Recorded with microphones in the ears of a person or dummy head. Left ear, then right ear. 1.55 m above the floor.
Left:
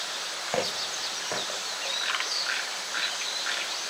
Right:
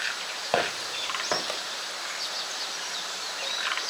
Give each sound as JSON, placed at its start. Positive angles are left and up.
{"t": 0.5, "sound": "footsteps", "side_deg": -45, "distance_m": 4.5}